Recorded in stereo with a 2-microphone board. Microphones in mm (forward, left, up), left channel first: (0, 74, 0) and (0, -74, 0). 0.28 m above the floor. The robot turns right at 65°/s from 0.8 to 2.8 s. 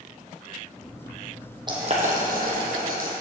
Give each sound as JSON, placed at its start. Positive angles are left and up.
{"t": 1.7, "sound": "boiling", "side_deg": -30, "distance_m": 1.8}